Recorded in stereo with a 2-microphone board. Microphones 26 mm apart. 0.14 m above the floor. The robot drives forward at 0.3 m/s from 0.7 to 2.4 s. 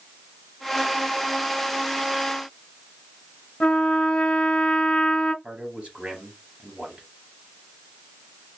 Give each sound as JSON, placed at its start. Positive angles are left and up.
{"t": 3.6, "sound": "a trumpet", "side_deg": 45, "distance_m": 0.7}
{"t": 5.4, "sound": "a man speaking", "side_deg": -55, "distance_m": 3.0}